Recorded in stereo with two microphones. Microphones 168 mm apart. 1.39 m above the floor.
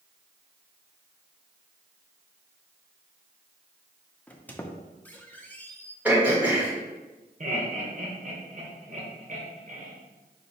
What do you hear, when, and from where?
4.3 s a squeak: 10° left (ahead or behind), 0.5 m
6.0 s throat clearing: 10° right (ahead or behind), 1.3 m
7.4 s laughter: 50° right (ahead or behind), 1.0 m